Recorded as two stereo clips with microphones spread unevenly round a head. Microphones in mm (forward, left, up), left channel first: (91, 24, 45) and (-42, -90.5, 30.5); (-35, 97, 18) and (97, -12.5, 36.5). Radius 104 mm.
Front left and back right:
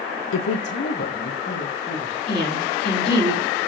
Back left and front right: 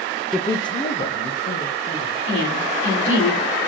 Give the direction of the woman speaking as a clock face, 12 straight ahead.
8 o'clock.